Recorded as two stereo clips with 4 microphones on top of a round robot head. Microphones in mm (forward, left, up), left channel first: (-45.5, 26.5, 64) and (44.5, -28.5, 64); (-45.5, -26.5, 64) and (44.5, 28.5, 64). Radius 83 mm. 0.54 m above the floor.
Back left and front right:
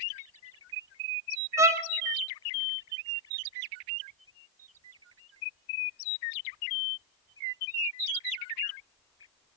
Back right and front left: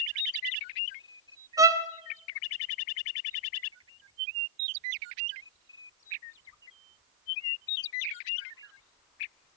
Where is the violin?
5° left, 1.2 m.